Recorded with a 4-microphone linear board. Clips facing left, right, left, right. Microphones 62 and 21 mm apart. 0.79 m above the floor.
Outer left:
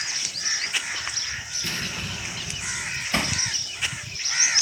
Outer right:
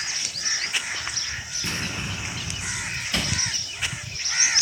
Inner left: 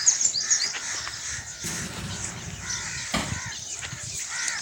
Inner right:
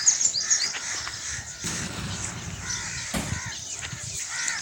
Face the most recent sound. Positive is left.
turn(degrees=30)  # may be behind; listen again after turning